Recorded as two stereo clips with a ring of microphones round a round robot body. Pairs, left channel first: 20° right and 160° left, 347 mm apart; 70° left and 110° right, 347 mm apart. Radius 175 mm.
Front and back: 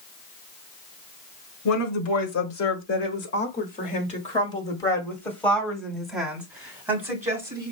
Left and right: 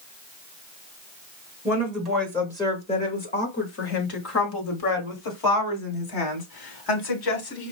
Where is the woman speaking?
35° right, 1.7 m; by 7.7 s 75° left, 3.5 m.